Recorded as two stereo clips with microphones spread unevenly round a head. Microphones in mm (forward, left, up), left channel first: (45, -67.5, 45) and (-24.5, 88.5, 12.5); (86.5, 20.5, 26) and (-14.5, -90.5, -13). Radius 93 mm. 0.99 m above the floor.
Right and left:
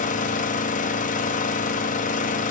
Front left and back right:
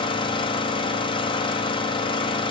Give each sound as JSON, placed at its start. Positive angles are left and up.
{"t": 0.0, "sound": "an engine running", "azimuth_deg": -15, "distance_m": 1.6}